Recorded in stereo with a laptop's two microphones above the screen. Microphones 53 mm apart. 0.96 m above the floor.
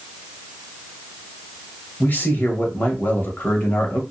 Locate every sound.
2.0 s a man speaking: 35° left (ahead or behind), 0.9 m